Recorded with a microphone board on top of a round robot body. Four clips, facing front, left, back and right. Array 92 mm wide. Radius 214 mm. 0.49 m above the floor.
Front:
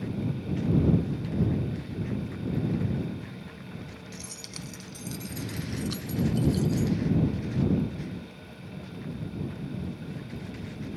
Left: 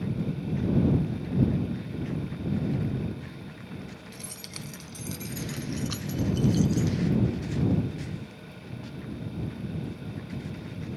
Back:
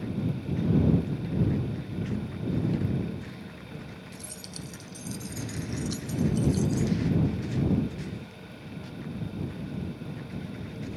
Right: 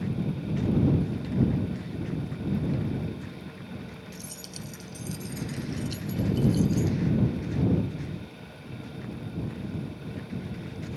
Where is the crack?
I don't hear a crack.